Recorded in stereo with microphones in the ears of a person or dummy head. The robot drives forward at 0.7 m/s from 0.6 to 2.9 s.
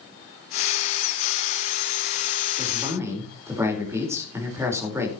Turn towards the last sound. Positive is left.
turn(degrees=-20)  # may be behind; listen again after turning